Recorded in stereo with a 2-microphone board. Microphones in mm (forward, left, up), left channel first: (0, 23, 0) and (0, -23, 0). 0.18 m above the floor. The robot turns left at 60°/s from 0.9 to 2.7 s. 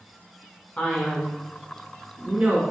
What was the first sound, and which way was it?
A man speaking, 30° left (ahead or behind).